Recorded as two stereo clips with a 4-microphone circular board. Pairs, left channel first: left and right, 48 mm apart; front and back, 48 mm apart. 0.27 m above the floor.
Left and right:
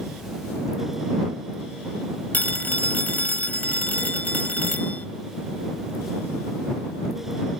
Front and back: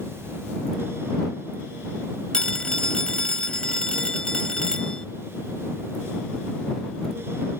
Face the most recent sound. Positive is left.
turn(degrees=65)